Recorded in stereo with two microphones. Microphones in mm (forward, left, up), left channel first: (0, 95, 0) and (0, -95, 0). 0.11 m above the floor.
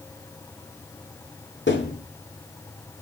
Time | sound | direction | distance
1.7 | a thud | 75° left (ahead or behind) | 10 m